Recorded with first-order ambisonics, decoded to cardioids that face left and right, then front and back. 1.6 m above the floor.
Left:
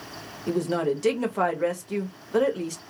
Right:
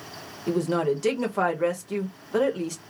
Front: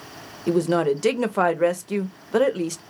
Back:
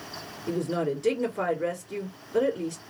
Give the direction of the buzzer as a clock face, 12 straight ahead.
No buzzer in this recording.